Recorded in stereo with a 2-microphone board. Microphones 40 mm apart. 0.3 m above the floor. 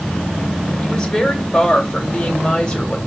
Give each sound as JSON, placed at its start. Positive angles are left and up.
{"t": 0.8, "sound": "a woman speaking", "side_deg": 15, "distance_m": 1.3}